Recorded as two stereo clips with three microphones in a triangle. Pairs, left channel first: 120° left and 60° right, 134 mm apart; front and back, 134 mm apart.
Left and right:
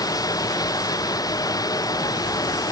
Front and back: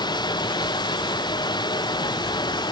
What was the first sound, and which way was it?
Running water, 55° left.